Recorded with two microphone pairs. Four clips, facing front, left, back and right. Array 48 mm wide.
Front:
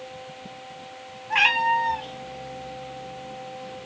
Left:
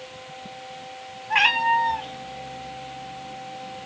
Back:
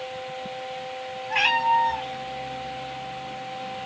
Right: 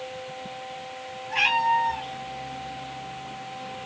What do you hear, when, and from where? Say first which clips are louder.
1.3 s a cat meowing: left 2 dB, front 1 dB; 70° left, 0.8 m; by 3.9 s 125° right, 1.0 m